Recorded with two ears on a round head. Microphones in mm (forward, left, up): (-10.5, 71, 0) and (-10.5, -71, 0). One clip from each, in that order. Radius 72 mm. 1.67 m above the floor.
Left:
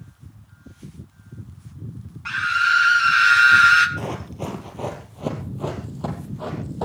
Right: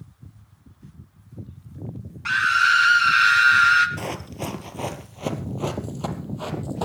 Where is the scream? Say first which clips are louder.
Right 1 dB; 30° right (ahead or behind), 1.8 m; by 3.9 s 10° left (ahead or behind), 1.7 m.